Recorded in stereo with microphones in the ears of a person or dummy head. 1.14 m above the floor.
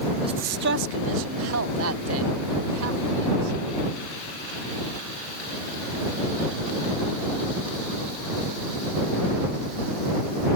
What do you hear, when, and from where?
0.2 s a man speaking: 20° right (ahead or behind); by 3.6 s 85° right